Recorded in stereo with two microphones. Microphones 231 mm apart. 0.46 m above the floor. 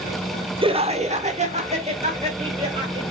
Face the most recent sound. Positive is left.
turn(degrees=-25)  # may be behind; listen again after turning